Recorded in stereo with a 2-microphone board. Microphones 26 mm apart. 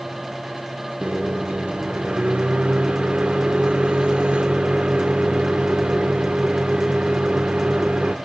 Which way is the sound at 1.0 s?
50° right (ahead or behind).